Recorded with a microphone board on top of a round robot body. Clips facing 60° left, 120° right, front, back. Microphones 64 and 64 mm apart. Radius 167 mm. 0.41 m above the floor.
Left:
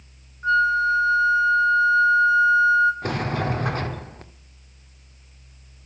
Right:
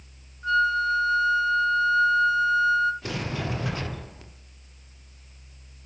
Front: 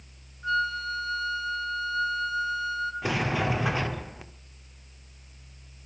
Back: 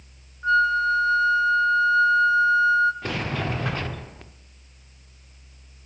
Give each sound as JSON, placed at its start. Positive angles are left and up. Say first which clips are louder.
{"t": 0.4, "sound": "a flute", "louder": "left 4 dB, back 8 dB", "azimuth_deg": 120, "distance_m": 1.5}
{"t": 3.0, "sound": "a sliding door", "louder": "left 6 dB, front 1 dB", "azimuth_deg": 75, "distance_m": 1.9}